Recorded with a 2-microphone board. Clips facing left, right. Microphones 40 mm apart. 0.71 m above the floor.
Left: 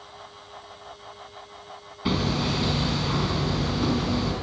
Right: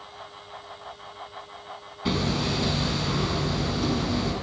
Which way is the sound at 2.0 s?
10° left (ahead or behind).